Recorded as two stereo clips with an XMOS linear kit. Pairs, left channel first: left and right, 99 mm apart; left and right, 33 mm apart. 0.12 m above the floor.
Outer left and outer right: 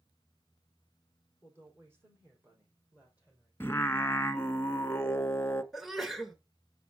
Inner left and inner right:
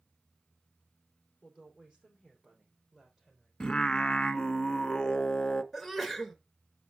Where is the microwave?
No microwave in this recording.